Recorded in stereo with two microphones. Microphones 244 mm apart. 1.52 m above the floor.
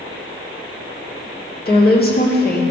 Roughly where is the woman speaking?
Left.